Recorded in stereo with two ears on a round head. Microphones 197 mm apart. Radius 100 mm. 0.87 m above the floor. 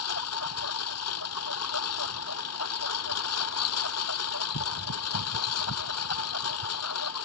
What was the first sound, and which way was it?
A lawn mower, 75° left (ahead or behind).